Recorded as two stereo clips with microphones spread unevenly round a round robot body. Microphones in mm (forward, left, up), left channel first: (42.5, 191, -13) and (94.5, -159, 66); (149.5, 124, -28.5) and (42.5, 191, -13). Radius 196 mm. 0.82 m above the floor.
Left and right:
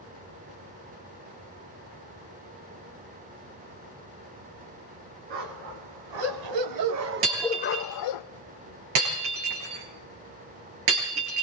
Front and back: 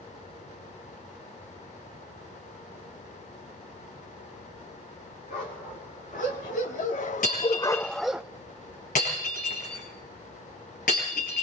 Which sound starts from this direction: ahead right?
Breaking glass, at 7.2 s.